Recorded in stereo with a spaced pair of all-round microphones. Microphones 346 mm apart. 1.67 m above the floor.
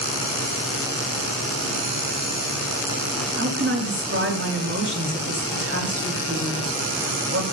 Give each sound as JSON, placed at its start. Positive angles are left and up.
{"t": 3.4, "sound": "a woman speaking", "side_deg": -40, "distance_m": 4.5}